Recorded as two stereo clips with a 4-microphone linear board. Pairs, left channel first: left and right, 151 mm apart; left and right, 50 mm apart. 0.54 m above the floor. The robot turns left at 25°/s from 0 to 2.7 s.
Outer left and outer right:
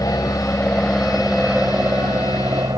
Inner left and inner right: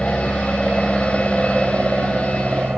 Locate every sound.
0.0 s an aircraft: 20° left (ahead or behind); by 2.8 s 25° right (ahead or behind)